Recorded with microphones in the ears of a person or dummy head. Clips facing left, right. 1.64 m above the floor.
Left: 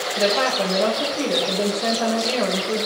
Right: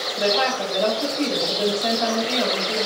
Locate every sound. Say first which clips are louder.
0.2 s a woman speaking: left 1 dB; 50° left (ahead or behind), 9 m